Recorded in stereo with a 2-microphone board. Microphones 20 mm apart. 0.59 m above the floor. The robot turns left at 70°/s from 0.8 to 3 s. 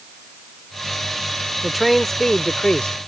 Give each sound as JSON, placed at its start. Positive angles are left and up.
{"t": 1.6, "sound": "a man speaking", "azimuth_deg": -170}